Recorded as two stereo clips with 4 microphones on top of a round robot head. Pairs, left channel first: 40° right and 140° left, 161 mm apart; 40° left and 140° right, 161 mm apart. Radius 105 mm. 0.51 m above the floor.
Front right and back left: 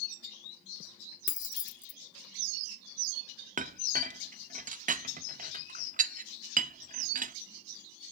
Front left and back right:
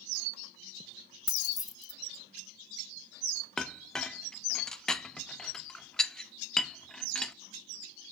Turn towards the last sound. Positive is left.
turn(degrees=125)